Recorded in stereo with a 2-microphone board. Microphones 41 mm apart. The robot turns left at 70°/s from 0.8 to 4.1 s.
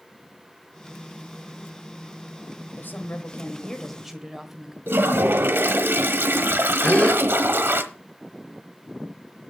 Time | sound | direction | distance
2.8 | a woman speaking | 85° left | 1.5 m
4.9 | a toilet flushing | 70° right (ahead or behind) | 1.0 m
6.8 | a gasp | 40° left (ahead or behind) | 2 m